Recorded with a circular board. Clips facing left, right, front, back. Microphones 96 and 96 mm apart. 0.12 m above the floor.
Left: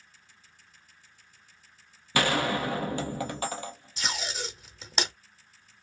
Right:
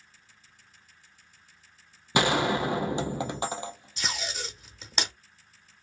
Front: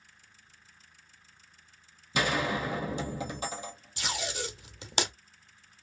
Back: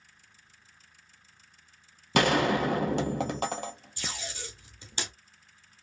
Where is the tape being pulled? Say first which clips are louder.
Left 1 dB, front 8 dB; straight ahead, 0.7 m.